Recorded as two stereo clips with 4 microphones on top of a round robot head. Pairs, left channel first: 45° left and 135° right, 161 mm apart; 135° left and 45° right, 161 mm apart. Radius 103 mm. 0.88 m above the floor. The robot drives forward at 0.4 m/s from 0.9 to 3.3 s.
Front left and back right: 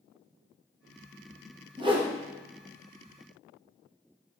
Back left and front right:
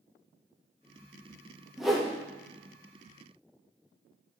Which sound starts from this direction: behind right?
A whoosh, at 1.8 s.